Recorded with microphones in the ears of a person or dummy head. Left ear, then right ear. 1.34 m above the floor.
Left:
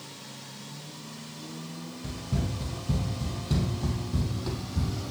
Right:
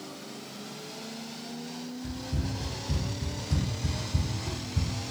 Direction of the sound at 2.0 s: 40° left (ahead or behind).